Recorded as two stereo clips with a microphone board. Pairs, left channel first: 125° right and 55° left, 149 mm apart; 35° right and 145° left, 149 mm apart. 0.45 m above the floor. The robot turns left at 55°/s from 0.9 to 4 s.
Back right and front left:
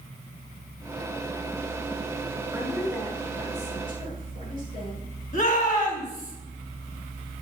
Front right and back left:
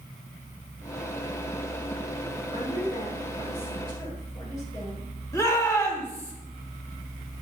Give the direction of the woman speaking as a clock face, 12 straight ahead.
1 o'clock.